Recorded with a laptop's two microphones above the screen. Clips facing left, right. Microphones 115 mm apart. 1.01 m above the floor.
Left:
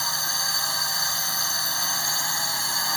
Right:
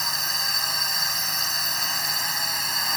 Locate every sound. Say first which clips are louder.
0.0 s a drone: left 1 dB; 5° left (ahead or behind)